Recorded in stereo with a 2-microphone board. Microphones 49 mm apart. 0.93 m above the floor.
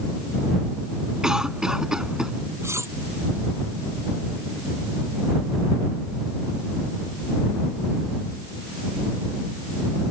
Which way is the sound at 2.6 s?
65° right (ahead or behind).